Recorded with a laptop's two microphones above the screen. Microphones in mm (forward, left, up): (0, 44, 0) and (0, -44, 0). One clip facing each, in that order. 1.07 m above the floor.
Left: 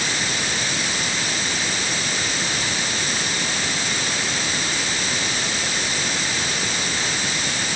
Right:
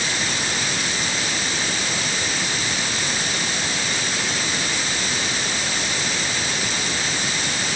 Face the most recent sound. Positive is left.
No sound to turn to.